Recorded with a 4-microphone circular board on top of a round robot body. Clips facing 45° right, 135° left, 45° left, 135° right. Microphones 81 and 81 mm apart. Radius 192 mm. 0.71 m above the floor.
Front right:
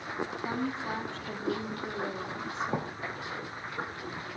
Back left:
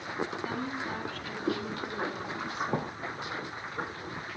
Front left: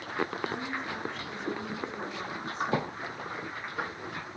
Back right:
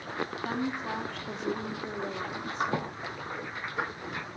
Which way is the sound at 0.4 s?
105° right.